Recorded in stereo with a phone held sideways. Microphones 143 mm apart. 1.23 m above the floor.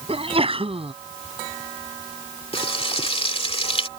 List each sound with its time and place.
0.1 s a sneeze: 40° right (ahead or behind)
2.5 s frying: 40° left (ahead or behind)